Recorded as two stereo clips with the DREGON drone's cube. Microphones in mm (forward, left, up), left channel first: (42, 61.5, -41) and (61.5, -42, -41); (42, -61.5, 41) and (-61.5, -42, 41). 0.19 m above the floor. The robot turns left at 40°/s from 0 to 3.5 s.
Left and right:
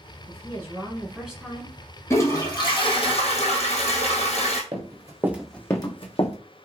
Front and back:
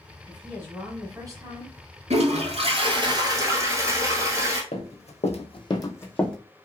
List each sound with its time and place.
0.3 s a woman speaking: 120° right, 1.3 m; by 1.8 s straight behind, 1.3 m
2.1 s a toilet flushing: 165° left, 1.0 m; by 4.6 s 110° left, 1.0 m
4.7 s running footsteps: 35° right, 1.0 m; by 6.3 s 75° left, 0.9 m